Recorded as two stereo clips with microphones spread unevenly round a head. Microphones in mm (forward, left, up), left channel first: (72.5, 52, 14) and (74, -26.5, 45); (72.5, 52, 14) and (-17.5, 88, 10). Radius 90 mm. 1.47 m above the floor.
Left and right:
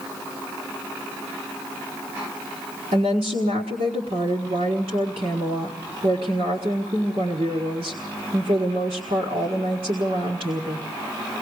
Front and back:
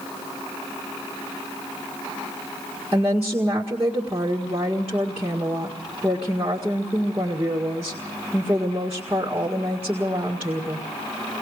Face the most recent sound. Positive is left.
turn(degrees=-120)